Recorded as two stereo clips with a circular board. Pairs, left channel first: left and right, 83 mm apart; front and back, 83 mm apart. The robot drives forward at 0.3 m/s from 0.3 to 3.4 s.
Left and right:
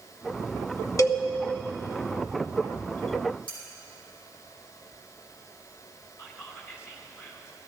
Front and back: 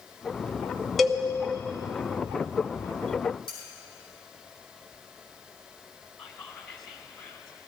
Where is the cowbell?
90° left, 0.8 m; by 1.2 s 95° left, 0.8 m.